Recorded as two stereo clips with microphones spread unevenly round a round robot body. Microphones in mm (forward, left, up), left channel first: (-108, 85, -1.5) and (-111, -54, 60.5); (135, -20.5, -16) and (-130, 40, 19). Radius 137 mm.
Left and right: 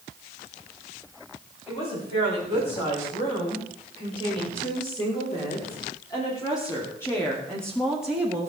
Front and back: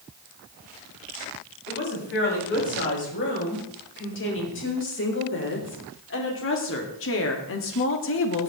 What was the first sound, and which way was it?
A woman speaking, 35° left.